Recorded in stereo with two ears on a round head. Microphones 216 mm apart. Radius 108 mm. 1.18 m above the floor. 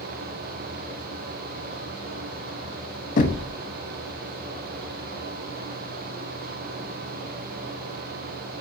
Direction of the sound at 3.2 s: 35° left (ahead or behind).